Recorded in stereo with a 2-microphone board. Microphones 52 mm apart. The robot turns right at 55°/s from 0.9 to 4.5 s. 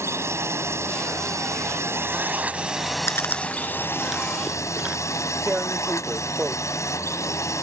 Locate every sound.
0.0 s a drone: 115° right; by 7.6 s 85° left
3.1 s chewing: 55° left (ahead or behind); by 5.0 s 20° right (ahead or behind)
5.5 s tearing paper: 25° right (ahead or behind)